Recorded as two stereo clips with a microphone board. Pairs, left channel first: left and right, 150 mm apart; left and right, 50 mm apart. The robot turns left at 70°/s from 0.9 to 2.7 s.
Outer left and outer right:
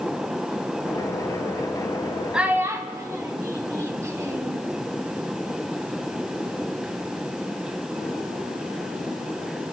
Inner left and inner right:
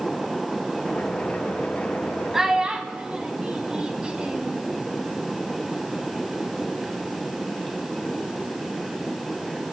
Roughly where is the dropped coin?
No dropped coin in this recording.